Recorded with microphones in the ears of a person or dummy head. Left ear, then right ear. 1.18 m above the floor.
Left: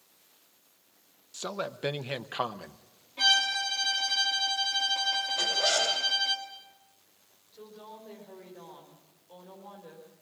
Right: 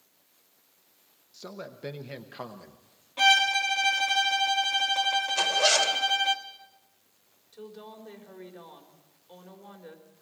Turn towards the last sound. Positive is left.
turn(degrees=-75)  # may be behind; listen again after turning